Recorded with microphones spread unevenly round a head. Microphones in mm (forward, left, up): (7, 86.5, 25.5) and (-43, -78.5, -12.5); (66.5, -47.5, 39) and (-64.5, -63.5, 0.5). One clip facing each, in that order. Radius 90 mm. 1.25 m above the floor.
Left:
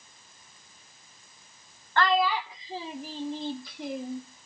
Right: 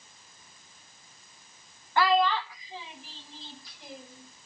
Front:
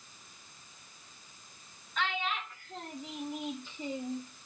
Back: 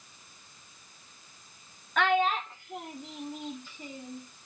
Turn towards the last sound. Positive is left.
turn(degrees=70)